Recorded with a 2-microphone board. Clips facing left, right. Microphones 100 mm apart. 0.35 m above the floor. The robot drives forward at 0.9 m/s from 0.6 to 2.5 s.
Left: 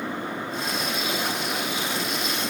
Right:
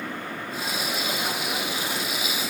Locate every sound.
Only background noise.